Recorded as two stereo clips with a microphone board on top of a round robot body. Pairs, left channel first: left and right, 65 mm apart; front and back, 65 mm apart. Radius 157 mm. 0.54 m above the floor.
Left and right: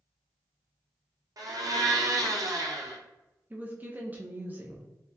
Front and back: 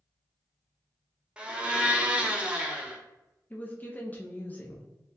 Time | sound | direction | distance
1.4 | a blender | 105° right | 1.0 m
3.5 | a woman speaking | 45° right | 0.9 m